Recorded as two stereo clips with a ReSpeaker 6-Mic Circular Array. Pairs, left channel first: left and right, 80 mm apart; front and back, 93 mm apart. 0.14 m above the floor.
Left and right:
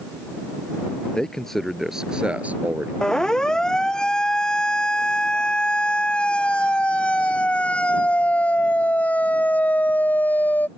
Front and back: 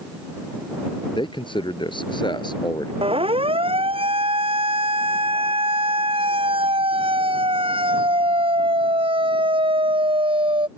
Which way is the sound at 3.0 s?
170° left.